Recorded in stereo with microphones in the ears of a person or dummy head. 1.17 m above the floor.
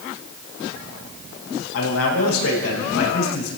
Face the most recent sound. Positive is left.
turn(degrees=85)